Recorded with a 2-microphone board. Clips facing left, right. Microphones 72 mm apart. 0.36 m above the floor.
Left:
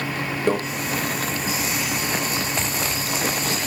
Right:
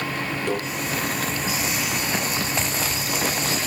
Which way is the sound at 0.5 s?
35° left (ahead or behind).